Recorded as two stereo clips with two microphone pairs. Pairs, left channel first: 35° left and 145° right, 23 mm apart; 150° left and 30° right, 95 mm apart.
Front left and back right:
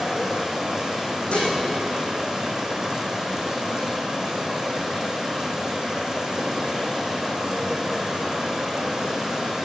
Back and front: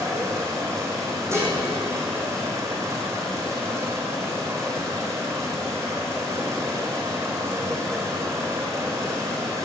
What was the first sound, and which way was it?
Running water, 85° right.